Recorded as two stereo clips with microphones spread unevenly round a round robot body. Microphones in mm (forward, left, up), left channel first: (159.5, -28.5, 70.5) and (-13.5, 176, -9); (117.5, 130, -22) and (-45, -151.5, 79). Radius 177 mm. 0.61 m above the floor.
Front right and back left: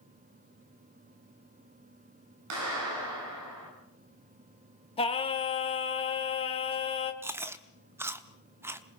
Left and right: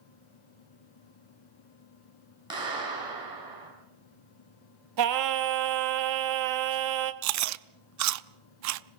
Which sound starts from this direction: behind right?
Singing, at 5.0 s.